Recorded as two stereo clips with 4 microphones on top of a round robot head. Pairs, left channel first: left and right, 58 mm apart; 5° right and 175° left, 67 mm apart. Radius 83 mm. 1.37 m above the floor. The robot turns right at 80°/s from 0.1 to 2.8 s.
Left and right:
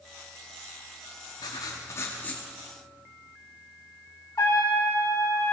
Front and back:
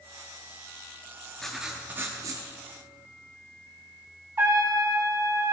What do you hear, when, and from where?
1.4 s writing: 75° left, 1.0 m; by 2.5 s 165° left, 1.0 m
4.4 s a trumpet: 120° left, 3 m